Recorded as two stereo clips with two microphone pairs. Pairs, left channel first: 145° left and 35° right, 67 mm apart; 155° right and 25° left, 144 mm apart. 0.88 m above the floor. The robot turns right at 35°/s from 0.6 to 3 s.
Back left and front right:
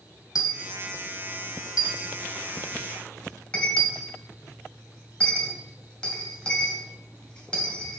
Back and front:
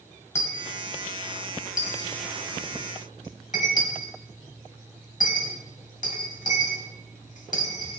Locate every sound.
0.3 s a dropped coin: 135° left, 1.4 m; by 8.0 s 140° right, 1.4 m